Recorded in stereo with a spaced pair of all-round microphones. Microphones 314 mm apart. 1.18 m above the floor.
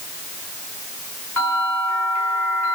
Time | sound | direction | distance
1.4 | a bell | 75° left (ahead or behind) | 5.5 m